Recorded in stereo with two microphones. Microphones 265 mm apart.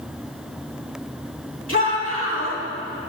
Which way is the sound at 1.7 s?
55° left (ahead or behind).